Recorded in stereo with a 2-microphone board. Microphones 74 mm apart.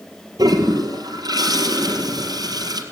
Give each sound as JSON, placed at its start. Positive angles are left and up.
{"t": 0.4, "sound": "a toilet flushing", "side_deg": -60, "distance_m": 4.0}